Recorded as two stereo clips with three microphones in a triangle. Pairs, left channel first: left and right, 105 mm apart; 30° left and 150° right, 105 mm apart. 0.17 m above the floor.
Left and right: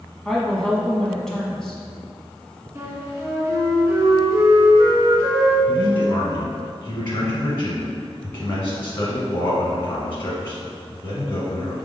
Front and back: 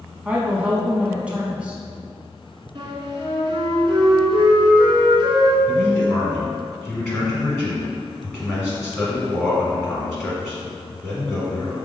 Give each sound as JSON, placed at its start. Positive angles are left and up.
{"t": 0.2, "sound": "a woman speaking", "azimuth_deg": 160, "distance_m": 1.0}
{"t": 2.8, "sound": "a flute", "azimuth_deg": -145, "distance_m": 1.8}
{"t": 5.7, "sound": "a man speaking", "azimuth_deg": 125, "distance_m": 1.2}